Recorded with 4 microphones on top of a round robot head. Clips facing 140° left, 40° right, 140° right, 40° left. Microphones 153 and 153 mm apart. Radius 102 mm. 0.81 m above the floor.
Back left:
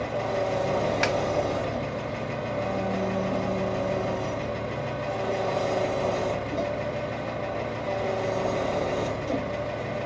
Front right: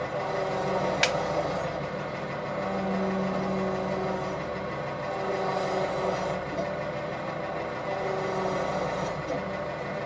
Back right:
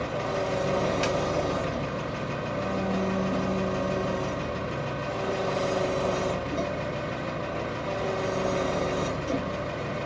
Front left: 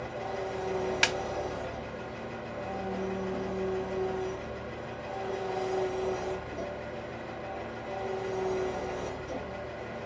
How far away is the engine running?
About 0.8 m.